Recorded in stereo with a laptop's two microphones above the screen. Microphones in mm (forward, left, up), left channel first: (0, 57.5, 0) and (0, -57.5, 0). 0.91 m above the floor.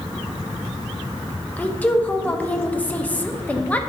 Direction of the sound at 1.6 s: 10° left (ahead or behind).